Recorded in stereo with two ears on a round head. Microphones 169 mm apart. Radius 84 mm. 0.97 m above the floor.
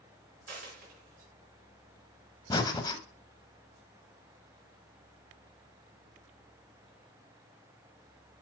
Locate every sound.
0.5 s a dropped coin: 50° right (ahead or behind), 3.5 m
2.5 s breathing: 20° left (ahead or behind), 0.8 m